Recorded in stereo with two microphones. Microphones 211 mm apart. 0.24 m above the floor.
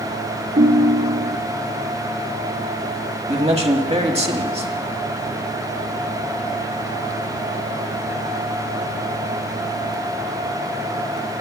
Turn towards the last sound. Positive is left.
turn(degrees=-30)  # may be behind; listen again after turning